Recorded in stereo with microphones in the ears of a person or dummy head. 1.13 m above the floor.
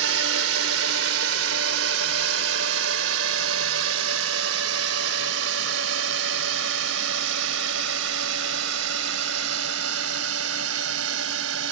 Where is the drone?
75° right (ahead or behind); by 11.7 s 80° right.